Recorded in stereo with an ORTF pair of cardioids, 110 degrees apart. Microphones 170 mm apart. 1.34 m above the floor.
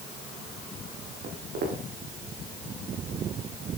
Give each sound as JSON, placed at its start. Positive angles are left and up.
{"t": 1.2, "sound": "footsteps", "azimuth_deg": -65, "distance_m": 5.0}